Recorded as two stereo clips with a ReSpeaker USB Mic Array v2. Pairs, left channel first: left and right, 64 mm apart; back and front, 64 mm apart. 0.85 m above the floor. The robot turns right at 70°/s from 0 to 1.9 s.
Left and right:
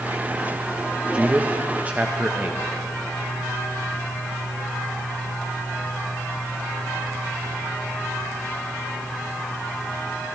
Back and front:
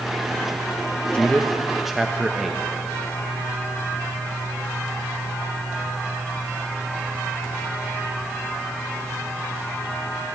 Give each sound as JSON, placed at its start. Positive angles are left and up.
{"t": 1.1, "sound": "a man speaking", "azimuth_deg": -135, "distance_m": 0.7}